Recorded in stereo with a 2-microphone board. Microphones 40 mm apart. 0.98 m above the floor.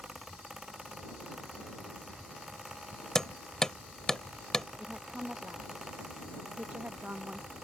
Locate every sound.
3.1 s hammering: 15° left (ahead or behind)
4.8 s a woman speaking: 45° right (ahead or behind)